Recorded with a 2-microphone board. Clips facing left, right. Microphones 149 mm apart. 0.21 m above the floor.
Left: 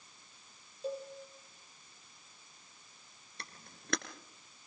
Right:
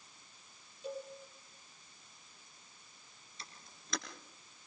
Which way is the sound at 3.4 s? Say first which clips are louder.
Left 3 dB; 65° left (ahead or behind).